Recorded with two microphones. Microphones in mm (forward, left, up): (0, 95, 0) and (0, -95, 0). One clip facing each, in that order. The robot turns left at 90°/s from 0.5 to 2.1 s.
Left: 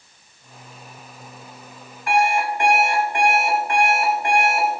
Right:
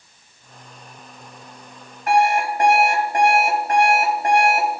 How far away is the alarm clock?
About 3.5 m.